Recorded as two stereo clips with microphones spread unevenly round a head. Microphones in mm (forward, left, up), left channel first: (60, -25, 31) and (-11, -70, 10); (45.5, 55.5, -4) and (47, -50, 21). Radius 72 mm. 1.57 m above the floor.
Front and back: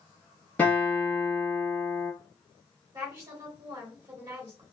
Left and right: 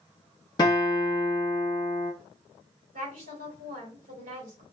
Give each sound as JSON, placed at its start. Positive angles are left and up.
{"t": 0.6, "sound": "a guitar", "azimuth_deg": 60, "distance_m": 1.1}
{"t": 2.9, "sound": "a woman speaking", "azimuth_deg": -110, "distance_m": 1.9}